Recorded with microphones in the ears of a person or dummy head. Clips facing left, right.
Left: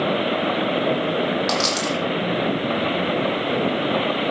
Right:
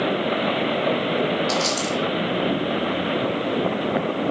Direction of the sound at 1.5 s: 60° left (ahead or behind).